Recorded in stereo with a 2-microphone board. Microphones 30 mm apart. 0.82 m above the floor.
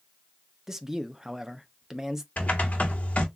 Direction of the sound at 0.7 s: 15° right (ahead or behind).